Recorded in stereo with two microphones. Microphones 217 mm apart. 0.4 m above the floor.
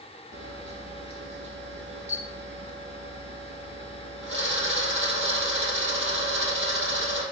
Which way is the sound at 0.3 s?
65° right (ahead or behind).